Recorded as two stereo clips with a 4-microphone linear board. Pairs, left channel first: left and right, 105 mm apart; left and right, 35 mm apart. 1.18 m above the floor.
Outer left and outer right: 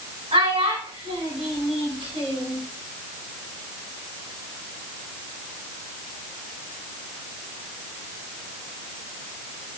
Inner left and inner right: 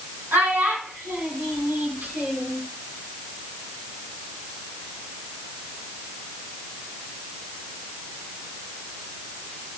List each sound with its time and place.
0.3 s a child speaking: 80° right, 3 m